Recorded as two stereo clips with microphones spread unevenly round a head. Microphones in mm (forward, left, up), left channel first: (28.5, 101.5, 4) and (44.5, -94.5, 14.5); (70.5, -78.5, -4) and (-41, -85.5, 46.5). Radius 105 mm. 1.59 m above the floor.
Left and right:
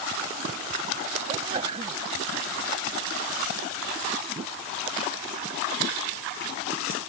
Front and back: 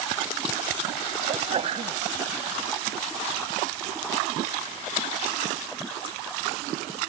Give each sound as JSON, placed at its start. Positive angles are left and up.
{"t": 1.3, "sound": "a sneeze", "azimuth_deg": -155}